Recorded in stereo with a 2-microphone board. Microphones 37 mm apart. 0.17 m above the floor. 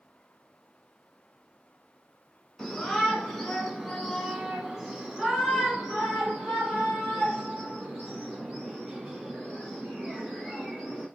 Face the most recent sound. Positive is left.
turn(degrees=-15)  # may be behind; listen again after turning